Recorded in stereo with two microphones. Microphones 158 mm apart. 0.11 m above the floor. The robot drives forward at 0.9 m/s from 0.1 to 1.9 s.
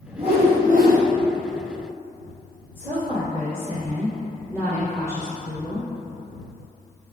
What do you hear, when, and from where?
0.2 s a whoosh: 35° right (ahead or behind), 1.0 m; by 1.0 s 75° right (ahead or behind), 0.6 m
2.8 s a woman speaking: 15° right (ahead or behind), 1.7 m